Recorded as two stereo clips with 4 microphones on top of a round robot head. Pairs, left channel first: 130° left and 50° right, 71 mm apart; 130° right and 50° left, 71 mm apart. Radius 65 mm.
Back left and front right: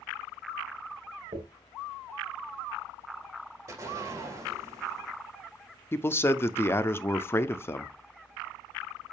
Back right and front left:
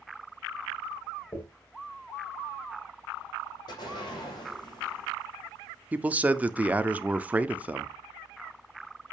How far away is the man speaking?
About 0.8 m.